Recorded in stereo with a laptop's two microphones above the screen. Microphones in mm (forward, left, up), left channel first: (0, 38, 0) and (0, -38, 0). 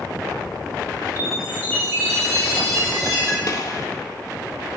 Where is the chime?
50° right (ahead or behind), 3 m.